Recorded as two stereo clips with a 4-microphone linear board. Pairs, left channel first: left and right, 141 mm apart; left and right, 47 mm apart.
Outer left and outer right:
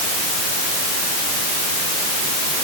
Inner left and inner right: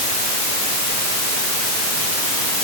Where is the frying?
No frying in this recording.